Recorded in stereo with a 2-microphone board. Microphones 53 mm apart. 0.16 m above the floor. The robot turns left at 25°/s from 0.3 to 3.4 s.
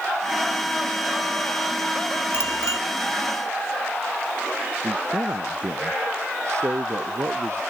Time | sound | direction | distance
2.3 | a bicycle bell | 50° left (ahead or behind) | ?
4.8 | a man speaking | 65° right (ahead or behind) | ?